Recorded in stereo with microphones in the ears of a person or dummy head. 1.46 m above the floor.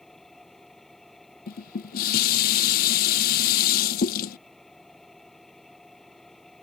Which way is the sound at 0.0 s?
5° left (ahead or behind).